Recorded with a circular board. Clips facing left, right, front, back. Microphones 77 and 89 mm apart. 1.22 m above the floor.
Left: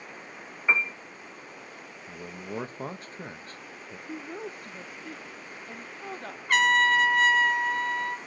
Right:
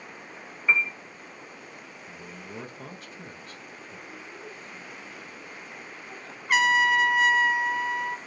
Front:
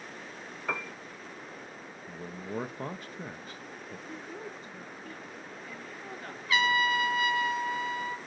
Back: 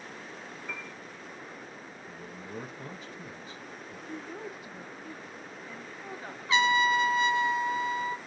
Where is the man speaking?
35° left, 1.3 m.